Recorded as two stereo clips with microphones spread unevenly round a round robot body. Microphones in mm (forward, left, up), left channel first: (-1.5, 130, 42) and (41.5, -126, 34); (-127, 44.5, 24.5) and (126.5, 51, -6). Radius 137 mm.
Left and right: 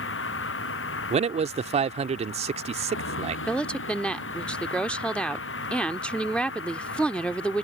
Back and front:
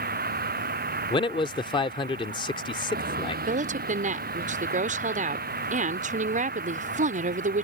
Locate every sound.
0.0 s a vehicle: 55° left
1.1 s a man speaking: 110° right
3.5 s a woman speaking: 15° left